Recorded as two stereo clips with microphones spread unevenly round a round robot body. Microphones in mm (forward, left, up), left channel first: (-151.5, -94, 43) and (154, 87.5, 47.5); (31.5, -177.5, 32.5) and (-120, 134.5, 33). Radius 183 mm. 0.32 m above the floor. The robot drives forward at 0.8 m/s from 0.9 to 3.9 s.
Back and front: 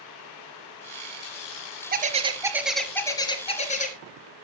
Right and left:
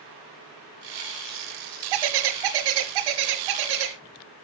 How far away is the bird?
About 1.4 m.